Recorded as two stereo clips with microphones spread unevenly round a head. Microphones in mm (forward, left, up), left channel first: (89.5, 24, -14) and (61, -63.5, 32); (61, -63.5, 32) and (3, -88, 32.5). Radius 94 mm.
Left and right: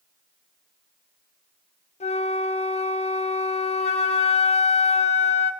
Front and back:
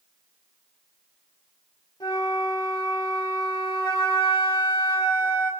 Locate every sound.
2.0 s a flute: 70° left, 1.6 m